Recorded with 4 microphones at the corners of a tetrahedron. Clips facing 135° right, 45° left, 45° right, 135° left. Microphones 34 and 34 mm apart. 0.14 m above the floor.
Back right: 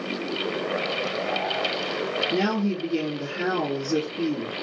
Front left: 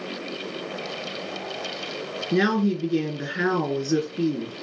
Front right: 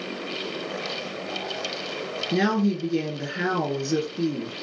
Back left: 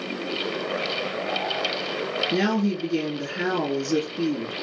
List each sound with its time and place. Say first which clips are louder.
2.3 s a woman speaking: front left 7 dB, front right 3 dB; 30° left, 2 m